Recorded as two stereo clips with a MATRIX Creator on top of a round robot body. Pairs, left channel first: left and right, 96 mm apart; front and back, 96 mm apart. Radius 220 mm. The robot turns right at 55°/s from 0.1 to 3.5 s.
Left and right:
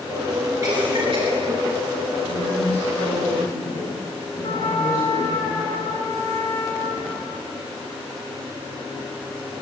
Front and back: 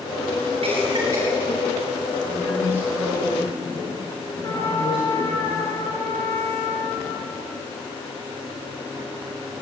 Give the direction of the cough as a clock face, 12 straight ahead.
5 o'clock.